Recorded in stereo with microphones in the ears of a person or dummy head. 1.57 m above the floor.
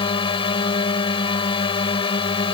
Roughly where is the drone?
Left.